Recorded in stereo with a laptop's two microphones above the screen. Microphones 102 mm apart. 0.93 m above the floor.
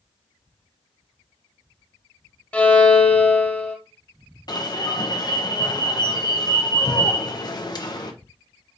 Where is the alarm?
45° left (ahead or behind), 0.6 m.